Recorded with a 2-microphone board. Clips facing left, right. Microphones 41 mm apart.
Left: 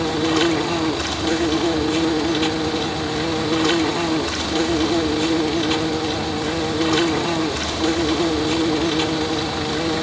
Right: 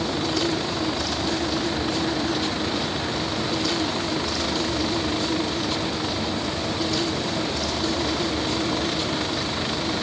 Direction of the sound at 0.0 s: 65° left (ahead or behind).